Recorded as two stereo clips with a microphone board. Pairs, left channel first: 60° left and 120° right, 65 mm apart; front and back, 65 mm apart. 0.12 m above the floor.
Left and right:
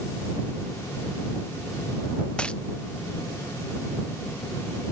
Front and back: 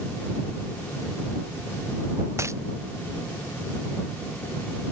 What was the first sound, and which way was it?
A dropped coin, 135° left.